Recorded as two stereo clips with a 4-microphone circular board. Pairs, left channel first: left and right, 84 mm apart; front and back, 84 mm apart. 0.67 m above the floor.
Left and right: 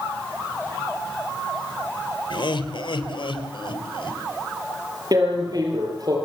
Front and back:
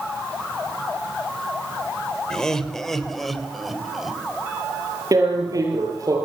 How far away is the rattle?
No rattle in this recording.